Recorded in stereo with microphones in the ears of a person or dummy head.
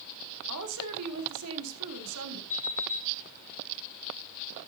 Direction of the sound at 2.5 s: 65° left (ahead or behind).